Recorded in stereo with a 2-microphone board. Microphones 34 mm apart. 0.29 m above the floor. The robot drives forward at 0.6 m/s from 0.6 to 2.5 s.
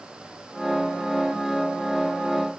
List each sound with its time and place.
Only background noise.